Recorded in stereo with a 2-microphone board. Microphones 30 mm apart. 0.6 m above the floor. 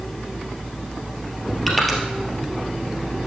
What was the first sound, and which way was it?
Crushing, 5° left (ahead or behind).